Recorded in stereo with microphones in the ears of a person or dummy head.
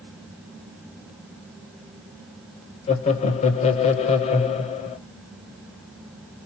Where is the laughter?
35° left (ahead or behind), 1.1 m.